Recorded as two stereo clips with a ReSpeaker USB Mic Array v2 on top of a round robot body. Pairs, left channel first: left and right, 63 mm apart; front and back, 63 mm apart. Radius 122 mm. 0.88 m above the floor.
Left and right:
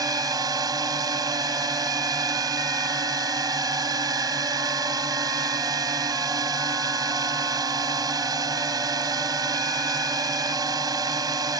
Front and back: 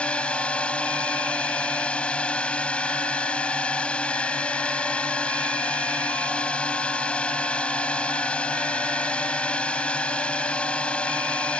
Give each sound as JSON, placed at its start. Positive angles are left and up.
{"t": 0.0, "sound": "a drone", "azimuth_deg": -75}